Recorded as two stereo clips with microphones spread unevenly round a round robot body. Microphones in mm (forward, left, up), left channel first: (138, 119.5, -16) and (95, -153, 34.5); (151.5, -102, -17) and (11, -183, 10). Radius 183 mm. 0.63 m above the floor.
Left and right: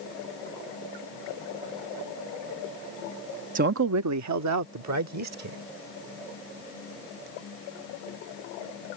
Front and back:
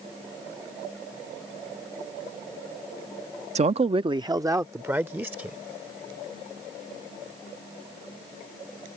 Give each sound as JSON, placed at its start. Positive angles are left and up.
{"t": 3.5, "sound": "a man speaking", "azimuth_deg": -155}